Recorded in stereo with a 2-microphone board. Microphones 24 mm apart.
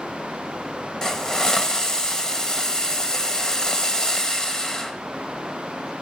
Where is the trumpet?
No trumpet in this recording.